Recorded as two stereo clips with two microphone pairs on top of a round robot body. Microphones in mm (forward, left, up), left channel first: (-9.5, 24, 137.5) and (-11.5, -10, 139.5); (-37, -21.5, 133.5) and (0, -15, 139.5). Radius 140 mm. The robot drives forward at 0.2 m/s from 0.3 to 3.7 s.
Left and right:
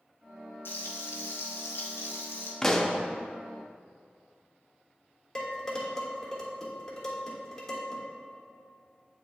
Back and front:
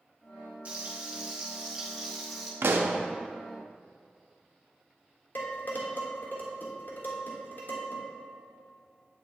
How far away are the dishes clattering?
About 1.4 m.